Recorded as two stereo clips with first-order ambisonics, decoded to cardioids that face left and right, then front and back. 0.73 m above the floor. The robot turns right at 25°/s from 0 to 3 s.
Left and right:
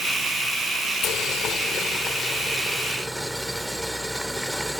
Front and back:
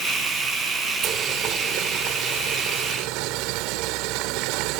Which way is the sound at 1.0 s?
130° left.